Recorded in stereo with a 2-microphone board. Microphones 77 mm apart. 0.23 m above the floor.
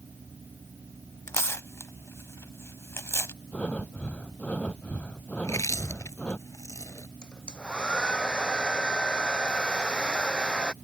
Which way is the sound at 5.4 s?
40° left (ahead or behind).